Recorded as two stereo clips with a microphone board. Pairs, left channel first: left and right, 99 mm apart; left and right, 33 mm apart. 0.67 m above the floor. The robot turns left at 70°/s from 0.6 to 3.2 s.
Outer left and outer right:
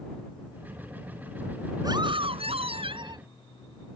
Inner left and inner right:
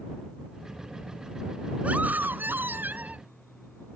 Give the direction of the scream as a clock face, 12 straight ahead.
1 o'clock.